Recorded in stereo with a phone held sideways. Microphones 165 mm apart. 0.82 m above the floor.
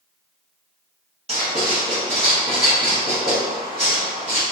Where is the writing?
40° right (ahead or behind), 1.3 m.